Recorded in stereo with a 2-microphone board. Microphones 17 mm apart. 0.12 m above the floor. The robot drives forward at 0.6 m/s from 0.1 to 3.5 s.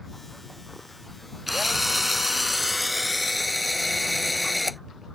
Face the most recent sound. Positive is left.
turn(degrees=-5)  # may be behind; listen again after turning